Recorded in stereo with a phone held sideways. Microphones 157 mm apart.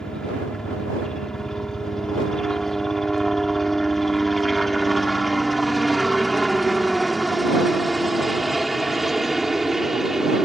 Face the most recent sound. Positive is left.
turn(degrees=-5)  # may be behind; listen again after turning